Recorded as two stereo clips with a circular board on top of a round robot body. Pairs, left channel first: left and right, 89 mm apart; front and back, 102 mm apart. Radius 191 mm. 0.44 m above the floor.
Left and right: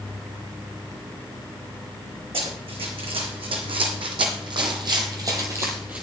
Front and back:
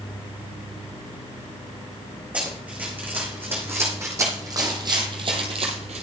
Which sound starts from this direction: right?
Running footsteps, at 2.3 s.